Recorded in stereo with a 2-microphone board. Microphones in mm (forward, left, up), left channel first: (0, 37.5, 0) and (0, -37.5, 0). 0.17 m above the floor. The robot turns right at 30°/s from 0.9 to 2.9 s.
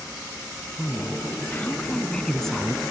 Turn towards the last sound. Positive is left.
turn(degrees=-175)